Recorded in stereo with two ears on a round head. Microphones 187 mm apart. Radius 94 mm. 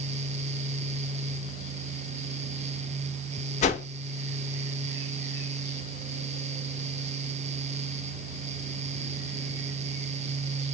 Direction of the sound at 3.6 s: 35° left (ahead or behind).